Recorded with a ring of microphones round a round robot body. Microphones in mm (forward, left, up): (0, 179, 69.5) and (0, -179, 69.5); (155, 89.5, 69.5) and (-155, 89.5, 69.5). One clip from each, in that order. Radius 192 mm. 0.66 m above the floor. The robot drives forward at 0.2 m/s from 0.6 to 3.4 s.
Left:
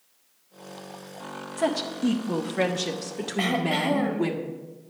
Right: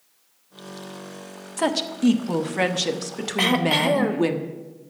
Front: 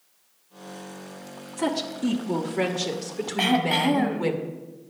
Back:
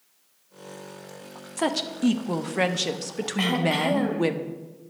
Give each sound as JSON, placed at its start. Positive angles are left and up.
{"t": 1.6, "sound": "a woman speaking", "azimuth_deg": -145, "distance_m": 1.1}
{"t": 3.4, "sound": "throat clearing", "azimuth_deg": -90, "distance_m": 1.2}